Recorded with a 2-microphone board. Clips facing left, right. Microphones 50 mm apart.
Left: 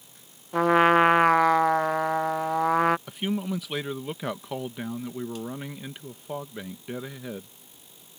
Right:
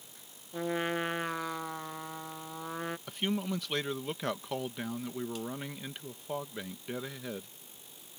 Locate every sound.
0.5 s a trumpet: 75° left (ahead or behind)
3.1 s a man speaking: 5° left (ahead or behind)